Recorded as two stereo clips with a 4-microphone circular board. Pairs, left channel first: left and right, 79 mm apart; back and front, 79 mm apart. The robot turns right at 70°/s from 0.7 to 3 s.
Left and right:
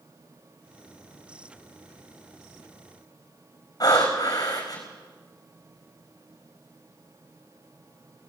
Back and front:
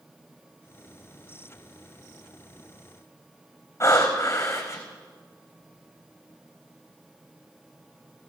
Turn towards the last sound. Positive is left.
turn(degrees=130)